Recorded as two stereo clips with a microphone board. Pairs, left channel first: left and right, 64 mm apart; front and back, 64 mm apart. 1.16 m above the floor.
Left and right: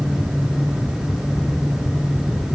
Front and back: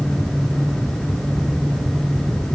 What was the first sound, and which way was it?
Only background noise.